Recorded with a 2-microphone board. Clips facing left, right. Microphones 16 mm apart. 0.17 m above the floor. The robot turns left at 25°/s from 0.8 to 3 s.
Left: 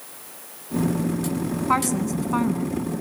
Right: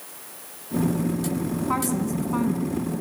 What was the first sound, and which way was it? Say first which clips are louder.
A woman speaking: left 4 dB; 35° left (ahead or behind).